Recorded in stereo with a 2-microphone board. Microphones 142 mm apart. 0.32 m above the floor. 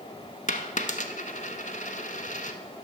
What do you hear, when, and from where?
0.5 s a dropped coin: 60° left (ahead or behind), 0.8 m